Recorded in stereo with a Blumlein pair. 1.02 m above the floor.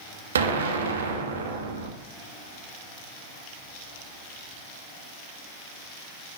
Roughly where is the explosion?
Ahead right.